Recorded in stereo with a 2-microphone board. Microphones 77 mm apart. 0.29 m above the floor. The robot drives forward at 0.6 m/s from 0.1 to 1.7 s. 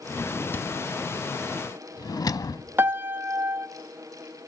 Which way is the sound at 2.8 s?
25° right (ahead or behind).